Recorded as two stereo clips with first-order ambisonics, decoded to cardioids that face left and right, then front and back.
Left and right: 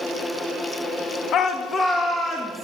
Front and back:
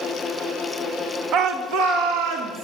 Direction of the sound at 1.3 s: 135° left.